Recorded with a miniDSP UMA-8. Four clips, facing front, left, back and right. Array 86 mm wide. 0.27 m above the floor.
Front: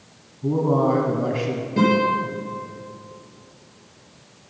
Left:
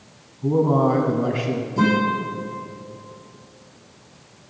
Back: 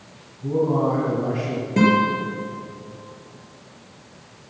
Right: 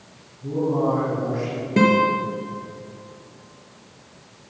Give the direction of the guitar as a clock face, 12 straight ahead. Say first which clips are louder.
Right 3 dB, back 1 dB; 4 o'clock.